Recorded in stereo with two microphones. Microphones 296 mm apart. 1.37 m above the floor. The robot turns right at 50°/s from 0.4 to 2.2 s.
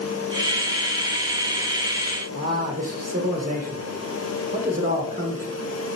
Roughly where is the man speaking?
Right.